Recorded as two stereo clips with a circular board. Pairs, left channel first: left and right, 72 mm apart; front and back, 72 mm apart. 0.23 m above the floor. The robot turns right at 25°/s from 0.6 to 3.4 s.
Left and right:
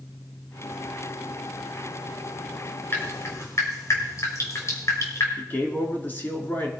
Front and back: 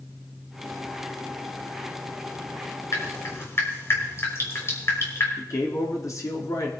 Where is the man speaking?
30° left, 3.5 m.